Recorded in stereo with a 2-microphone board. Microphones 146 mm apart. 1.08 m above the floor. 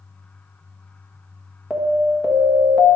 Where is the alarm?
5° right (ahead or behind), 1.3 m.